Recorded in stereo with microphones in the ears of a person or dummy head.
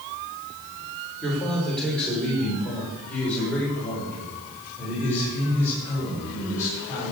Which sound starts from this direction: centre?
A man speaking, at 1.2 s.